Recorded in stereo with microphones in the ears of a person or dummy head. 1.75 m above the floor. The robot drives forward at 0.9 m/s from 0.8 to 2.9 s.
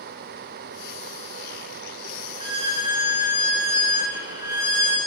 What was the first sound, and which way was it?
A violin, 30° right (ahead or behind).